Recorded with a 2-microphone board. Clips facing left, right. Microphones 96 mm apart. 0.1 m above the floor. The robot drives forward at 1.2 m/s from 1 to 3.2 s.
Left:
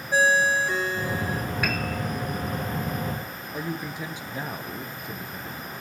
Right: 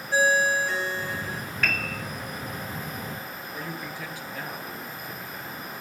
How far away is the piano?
About 1.4 m.